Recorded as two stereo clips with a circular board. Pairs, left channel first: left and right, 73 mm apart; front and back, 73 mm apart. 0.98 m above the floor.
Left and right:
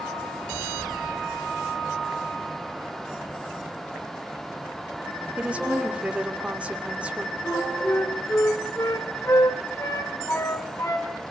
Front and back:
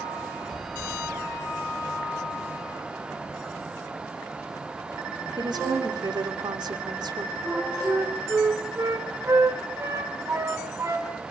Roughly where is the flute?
Behind left.